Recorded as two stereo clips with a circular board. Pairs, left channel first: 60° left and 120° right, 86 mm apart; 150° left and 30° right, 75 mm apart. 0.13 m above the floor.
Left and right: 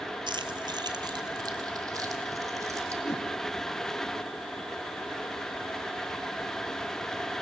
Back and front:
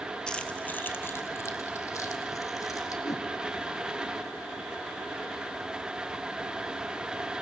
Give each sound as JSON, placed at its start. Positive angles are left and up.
{"t": 0.3, "sound": "keys jangling", "azimuth_deg": -135, "distance_m": 2.0}
{"t": 3.0, "sound": "a whoosh", "azimuth_deg": 115, "distance_m": 2.5}